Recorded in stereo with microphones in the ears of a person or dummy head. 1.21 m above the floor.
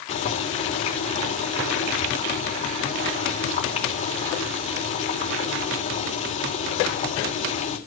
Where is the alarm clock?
No alarm clock in this recording.